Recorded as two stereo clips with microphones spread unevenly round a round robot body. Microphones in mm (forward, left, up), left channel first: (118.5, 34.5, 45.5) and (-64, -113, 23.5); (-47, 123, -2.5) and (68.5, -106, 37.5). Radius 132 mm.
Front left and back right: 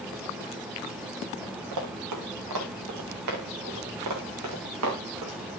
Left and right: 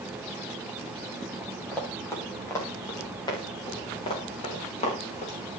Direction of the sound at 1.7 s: 160° right.